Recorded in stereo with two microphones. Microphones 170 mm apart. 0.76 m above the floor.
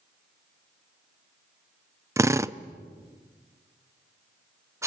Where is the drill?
15° right (ahead or behind), 0.6 m.